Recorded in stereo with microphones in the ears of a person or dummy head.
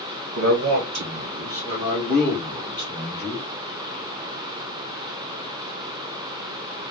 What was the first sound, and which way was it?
A man speaking, 80° right.